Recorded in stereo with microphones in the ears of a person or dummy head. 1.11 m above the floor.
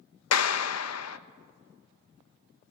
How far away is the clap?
About 0.8 m.